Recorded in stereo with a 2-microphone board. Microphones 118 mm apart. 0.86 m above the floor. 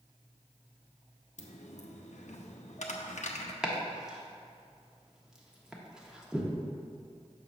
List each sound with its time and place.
1.4 s a dropped coin: 80° left, 0.7 m
3.6 s chopping: 5° right (ahead or behind), 0.9 m